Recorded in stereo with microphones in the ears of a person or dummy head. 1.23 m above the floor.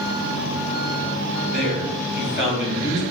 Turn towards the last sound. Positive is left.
turn(degrees=0)  # may be behind; listen again after turning